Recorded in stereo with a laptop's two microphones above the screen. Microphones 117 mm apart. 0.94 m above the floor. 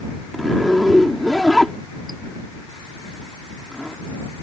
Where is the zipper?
Centre (ahead or behind).